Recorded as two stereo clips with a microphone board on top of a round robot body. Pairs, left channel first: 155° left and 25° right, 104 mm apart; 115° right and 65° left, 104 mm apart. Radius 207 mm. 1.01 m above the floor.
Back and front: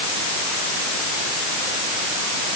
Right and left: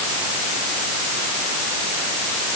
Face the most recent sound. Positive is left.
No sound to turn to.